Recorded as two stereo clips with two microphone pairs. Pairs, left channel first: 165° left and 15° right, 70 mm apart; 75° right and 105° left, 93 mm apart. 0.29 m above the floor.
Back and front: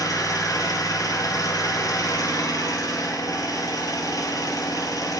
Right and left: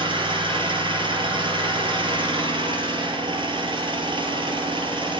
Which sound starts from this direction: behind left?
An engine running, at 0.0 s.